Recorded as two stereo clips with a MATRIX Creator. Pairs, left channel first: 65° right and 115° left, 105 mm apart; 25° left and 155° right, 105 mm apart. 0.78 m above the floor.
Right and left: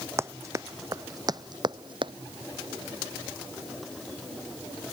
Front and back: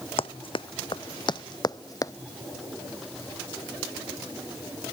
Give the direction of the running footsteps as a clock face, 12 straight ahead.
10 o'clock.